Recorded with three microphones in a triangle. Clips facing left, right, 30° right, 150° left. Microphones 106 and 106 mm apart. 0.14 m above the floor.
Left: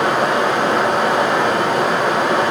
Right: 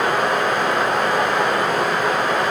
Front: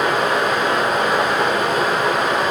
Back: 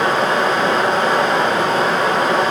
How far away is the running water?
About 3 m.